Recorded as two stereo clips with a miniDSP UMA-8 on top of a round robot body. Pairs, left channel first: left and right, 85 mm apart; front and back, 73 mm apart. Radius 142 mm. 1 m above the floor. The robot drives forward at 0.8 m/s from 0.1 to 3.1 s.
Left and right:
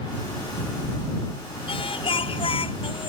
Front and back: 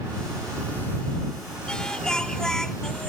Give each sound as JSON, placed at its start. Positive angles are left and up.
{"t": 1.7, "sound": "singing", "azimuth_deg": 80}